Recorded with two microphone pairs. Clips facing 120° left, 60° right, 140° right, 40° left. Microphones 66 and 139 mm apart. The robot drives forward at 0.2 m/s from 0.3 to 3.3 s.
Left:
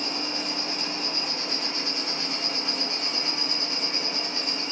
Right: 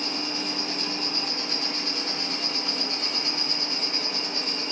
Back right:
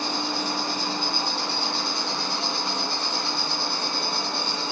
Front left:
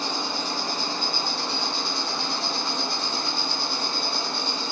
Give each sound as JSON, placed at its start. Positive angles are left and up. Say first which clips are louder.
{"t": 0.0, "sound": "an insect", "louder": "even, back right 2 dB", "azimuth_deg": -150, "distance_m": 1.4}